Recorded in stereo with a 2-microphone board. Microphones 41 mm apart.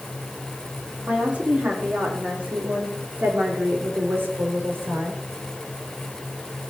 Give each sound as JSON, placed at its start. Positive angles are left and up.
{"t": 1.1, "sound": "a woman speaking", "side_deg": -35, "distance_m": 4.0}